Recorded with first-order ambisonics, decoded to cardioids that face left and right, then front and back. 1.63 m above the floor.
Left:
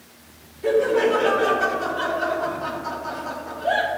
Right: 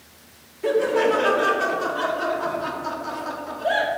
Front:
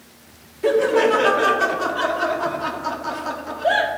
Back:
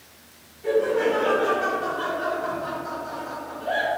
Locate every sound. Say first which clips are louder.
0.6 s laughter: left 1 dB, front 5 dB; 15° right, 1.0 m